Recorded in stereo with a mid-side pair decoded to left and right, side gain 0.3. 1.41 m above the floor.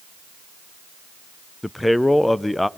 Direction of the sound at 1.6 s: 15° left.